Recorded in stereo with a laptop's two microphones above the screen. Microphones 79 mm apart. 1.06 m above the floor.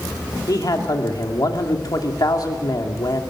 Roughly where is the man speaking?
Left.